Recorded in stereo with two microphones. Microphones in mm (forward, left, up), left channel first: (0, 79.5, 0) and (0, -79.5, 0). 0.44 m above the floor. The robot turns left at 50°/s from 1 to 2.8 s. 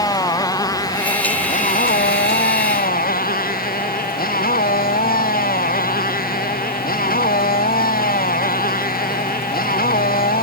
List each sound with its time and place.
0.0 s a motorcycle: 160° left; by 10.4 s 70° left